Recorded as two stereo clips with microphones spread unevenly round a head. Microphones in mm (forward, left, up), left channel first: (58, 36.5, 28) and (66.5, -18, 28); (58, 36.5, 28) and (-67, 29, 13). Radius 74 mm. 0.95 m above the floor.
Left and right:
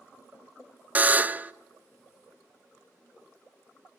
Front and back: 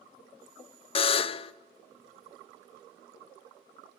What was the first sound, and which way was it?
A buzzer, 30° right.